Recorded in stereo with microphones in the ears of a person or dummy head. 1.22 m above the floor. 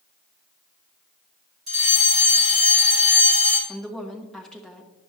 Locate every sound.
1.7 s a fire alarm: 25° right (ahead or behind), 2.5 m
3.7 s a woman speaking: 5° left (ahead or behind), 1.2 m